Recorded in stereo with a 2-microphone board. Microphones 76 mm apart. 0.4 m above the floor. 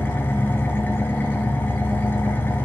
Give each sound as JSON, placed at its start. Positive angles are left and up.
{"t": 0.0, "sound": "an engine running", "side_deg": 25, "distance_m": 1.0}